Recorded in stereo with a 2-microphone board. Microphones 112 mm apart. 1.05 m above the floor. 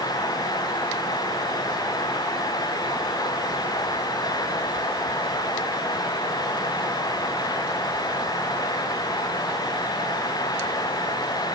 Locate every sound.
Only background noise.